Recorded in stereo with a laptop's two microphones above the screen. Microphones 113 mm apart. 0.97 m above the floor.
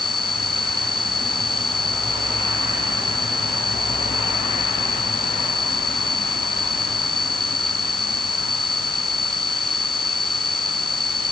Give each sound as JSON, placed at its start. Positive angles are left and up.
{"t": 0.0, "sound": "an insect", "side_deg": 0}